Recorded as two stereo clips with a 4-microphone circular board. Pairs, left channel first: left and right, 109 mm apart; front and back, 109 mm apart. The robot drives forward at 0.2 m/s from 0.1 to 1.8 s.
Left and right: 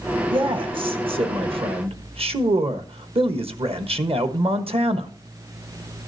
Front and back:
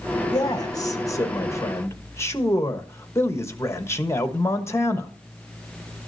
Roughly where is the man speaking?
Ahead right.